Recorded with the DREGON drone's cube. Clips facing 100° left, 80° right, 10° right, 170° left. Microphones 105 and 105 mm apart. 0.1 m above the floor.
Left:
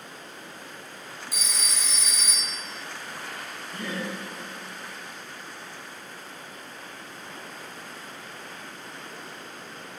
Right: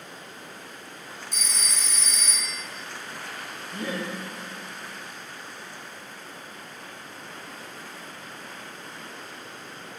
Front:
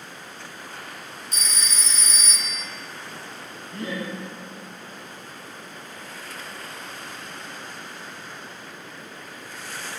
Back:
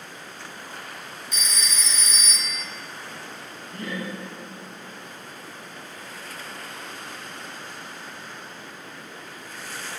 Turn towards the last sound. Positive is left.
turn(degrees=-30)